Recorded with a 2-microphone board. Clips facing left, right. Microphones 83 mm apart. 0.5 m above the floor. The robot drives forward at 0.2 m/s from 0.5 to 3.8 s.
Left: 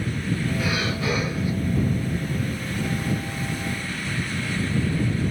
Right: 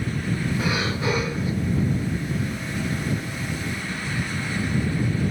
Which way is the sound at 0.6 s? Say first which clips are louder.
Right 1 dB; 25° right (ahead or behind).